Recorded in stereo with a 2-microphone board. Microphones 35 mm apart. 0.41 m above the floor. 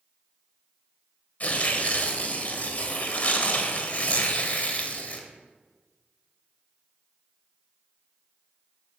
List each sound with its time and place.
1.4 s tearing paper: 45° left (ahead or behind), 1.2 m